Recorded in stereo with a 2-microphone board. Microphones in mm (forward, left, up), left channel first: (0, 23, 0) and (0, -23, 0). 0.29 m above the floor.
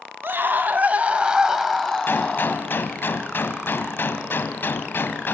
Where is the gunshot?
55° left (ahead or behind), 1.8 m.